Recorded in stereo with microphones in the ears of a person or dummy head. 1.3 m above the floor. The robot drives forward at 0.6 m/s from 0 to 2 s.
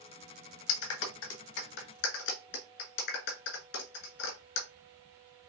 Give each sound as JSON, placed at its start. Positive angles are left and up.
{"t": 0.7, "sound": "a clap", "side_deg": 80, "distance_m": 1.3}